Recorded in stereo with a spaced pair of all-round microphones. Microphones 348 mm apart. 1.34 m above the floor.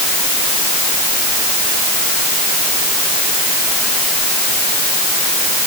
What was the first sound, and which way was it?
Only background noise.